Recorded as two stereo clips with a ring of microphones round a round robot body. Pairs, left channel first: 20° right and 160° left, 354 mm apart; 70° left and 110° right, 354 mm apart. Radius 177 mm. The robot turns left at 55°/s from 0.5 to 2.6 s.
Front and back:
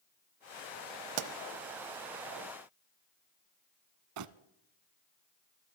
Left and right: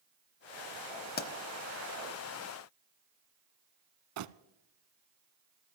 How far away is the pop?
About 0.8 m.